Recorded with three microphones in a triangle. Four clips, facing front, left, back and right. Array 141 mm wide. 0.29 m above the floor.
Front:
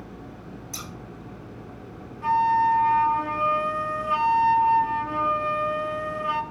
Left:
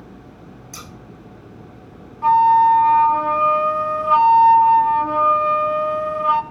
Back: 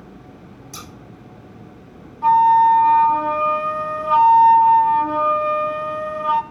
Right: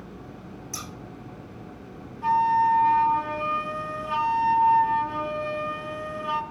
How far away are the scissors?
About 3.5 m.